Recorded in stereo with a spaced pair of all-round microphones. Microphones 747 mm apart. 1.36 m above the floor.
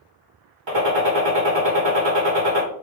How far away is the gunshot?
About 1.0 m.